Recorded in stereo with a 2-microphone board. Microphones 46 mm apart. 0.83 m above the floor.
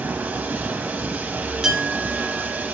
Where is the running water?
30° right (ahead or behind), 1.2 m.